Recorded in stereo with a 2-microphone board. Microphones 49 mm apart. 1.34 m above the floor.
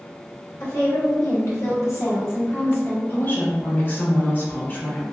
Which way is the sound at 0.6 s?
70° left (ahead or behind).